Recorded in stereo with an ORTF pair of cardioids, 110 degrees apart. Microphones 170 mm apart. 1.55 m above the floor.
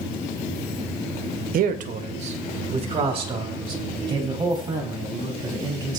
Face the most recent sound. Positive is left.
turn(degrees=-25)